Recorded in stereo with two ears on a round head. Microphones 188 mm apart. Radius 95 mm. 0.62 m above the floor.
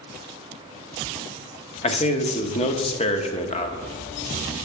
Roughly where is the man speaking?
Left.